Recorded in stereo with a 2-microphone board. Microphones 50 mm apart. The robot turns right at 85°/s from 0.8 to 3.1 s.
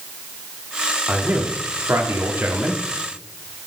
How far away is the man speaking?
About 1.2 m.